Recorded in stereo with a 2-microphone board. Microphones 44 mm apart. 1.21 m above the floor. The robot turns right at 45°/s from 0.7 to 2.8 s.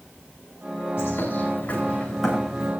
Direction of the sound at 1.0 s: 115° left.